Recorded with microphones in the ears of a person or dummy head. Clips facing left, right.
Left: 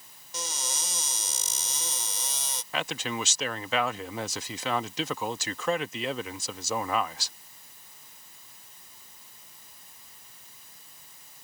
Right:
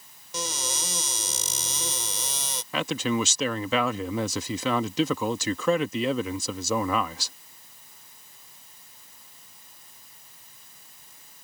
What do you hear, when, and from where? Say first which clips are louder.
0.3 s a cupboard door: right 5 dB; 65° right (ahead or behind)
2.7 s a man speaking: right 6 dB; 80° right